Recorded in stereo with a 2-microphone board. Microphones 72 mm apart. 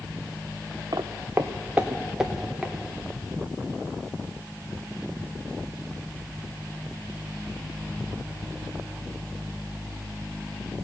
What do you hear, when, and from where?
0.9 s footsteps: 60° right (ahead or behind), 0.9 m; by 2.7 s centre (ahead or behind), 2 m